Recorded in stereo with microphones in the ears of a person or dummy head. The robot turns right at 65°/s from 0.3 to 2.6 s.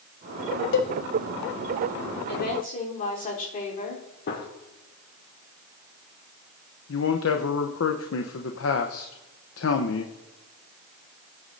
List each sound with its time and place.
0.7 s a cowbell: 70° left (ahead or behind), 0.9 m; by 0.9 s 60° left (ahead or behind), 0.9 m
2.3 s a woman speaking: 70° left (ahead or behind), 3.5 m; by 4.0 s 50° left (ahead or behind), 3.5 m
4.3 s a gunshot: 55° left (ahead or behind), 1.8 m
6.9 s a man speaking: 70° left (ahead or behind), 1.0 m